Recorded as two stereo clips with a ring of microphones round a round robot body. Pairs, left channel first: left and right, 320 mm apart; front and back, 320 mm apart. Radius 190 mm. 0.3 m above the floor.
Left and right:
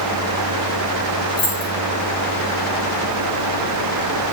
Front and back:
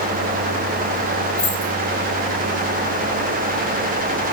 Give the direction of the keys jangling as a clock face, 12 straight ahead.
9 o'clock.